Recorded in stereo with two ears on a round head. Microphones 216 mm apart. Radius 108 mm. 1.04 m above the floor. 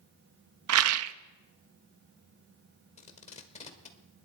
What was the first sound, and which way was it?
A rattle, 65° right (ahead or behind).